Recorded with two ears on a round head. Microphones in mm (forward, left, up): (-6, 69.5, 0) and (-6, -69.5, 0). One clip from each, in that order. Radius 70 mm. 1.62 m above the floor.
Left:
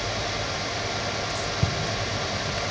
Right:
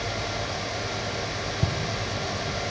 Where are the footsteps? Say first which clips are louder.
Left 2 dB; 45° left (ahead or behind), 2 m.